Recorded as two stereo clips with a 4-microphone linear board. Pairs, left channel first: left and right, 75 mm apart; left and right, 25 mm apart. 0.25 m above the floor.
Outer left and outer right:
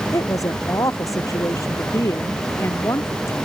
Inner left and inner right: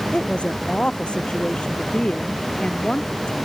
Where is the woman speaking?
45° left (ahead or behind); by 3.3 s 40° left (ahead or behind).